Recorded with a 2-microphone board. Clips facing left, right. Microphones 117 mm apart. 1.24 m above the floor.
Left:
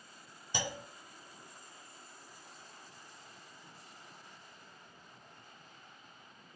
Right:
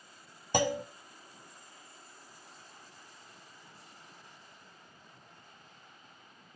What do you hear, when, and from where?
0.5 s a clunk: 55° right (ahead or behind), 0.8 m